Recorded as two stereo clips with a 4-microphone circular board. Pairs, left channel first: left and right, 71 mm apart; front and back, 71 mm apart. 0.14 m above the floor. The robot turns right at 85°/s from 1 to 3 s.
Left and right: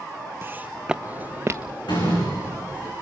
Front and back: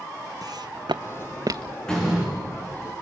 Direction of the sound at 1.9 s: 80° left.